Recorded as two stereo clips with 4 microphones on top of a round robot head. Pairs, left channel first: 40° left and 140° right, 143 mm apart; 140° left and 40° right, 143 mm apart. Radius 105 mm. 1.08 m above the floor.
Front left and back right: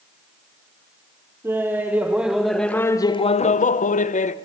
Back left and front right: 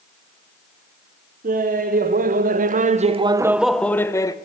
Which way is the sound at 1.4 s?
65° right.